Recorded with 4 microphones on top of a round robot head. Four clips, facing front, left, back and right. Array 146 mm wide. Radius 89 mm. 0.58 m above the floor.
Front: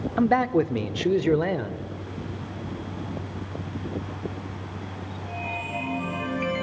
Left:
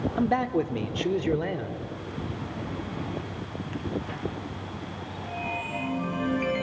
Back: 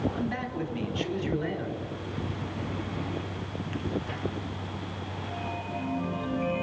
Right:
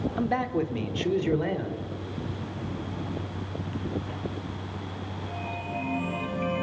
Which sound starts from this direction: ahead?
A man speaking, at 0.2 s.